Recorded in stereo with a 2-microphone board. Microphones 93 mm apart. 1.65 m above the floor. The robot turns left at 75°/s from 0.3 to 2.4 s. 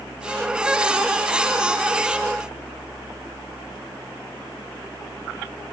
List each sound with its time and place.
Only background noise.